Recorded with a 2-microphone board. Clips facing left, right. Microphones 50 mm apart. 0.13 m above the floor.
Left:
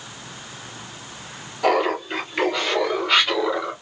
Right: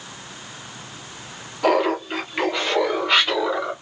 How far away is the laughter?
About 1.7 m.